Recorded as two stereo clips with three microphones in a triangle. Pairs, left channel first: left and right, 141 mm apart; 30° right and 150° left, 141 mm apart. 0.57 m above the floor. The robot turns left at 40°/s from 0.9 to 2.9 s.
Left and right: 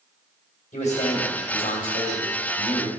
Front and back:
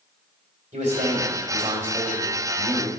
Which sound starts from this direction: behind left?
A man speaking, at 0.7 s.